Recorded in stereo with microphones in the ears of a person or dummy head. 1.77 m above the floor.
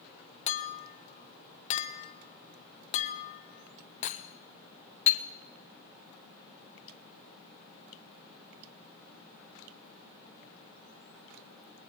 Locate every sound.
0.5 s a clink: 45° left (ahead or behind), 0.9 m